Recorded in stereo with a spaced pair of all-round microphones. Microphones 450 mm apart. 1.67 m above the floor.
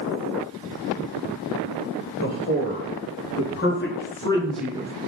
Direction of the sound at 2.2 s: 45° left (ahead or behind).